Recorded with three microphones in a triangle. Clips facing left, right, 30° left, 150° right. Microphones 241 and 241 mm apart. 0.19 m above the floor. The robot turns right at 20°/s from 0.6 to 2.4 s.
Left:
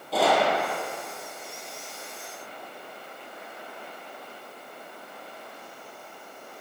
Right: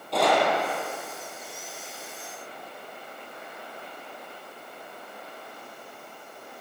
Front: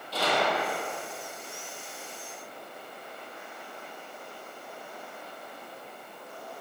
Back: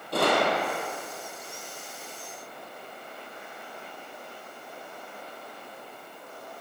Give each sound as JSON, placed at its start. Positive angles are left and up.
{"t": 0.1, "sound": "a gunshot", "azimuth_deg": 175, "distance_m": 2.5}